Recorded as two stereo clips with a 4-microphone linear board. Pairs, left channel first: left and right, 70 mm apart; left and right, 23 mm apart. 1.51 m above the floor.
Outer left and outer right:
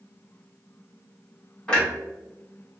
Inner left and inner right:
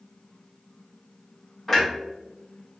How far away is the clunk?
About 1.7 m.